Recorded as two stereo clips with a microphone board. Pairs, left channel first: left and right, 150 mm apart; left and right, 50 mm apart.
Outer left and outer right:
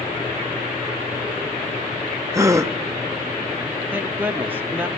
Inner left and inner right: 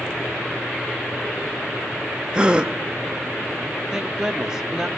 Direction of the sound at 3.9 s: 15° right (ahead or behind).